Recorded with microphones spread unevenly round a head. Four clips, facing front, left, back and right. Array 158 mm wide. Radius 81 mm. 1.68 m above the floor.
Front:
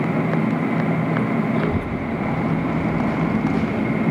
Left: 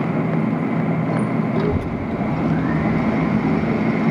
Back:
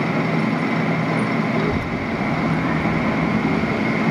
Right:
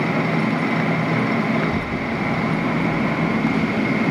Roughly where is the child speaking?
Left.